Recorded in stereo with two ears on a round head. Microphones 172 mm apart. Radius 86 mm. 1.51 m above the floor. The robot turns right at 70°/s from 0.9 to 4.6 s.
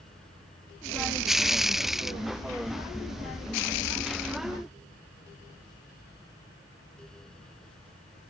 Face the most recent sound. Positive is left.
No sound to turn to.